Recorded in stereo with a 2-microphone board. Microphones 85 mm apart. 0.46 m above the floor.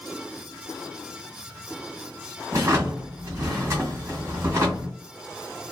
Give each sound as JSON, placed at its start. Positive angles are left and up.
{"t": 2.5, "sound": "a drawer", "side_deg": -40, "distance_m": 1.3}